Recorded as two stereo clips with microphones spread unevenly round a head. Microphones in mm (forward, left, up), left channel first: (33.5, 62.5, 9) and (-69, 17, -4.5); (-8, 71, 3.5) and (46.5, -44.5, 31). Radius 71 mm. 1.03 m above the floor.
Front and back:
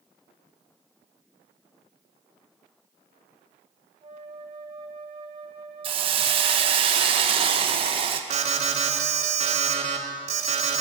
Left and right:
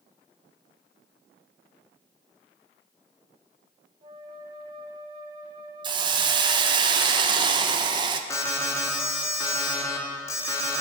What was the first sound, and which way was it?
A flute, 125° right.